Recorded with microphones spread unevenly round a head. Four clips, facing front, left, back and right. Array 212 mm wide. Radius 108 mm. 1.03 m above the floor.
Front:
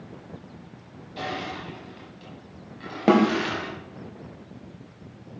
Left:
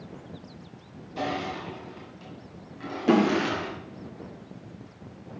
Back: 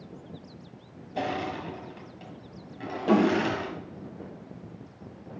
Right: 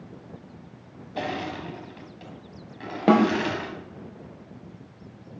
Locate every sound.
1.2 s crushing: 135° right, 1.5 m
3.1 s a snare drum: 35° right, 2 m